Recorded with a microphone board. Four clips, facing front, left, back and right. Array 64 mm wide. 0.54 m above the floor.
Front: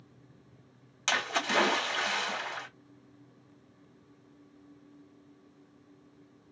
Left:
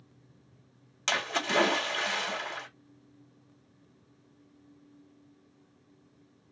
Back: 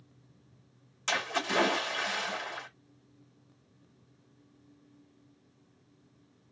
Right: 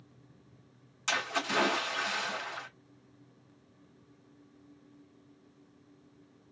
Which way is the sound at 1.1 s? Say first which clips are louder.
Left 2 dB, front 1 dB; 45° left.